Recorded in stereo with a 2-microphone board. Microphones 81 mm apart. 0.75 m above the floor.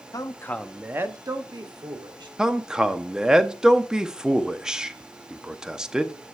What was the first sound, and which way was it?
A man speaking, 50° left (ahead or behind).